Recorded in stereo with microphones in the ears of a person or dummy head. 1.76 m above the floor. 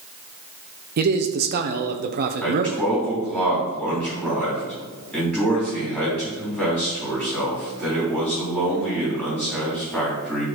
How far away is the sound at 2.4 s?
About 4 m.